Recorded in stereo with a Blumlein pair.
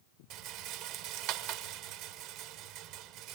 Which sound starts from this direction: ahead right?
A rattle, at 0.3 s.